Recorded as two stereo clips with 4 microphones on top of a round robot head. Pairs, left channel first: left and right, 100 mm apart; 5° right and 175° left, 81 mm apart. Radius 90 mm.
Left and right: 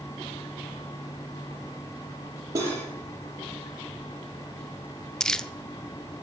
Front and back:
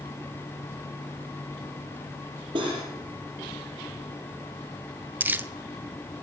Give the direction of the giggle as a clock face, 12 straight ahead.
I don't hear a giggle.